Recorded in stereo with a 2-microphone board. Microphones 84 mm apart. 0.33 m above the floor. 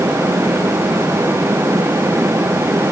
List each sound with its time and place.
Only background noise.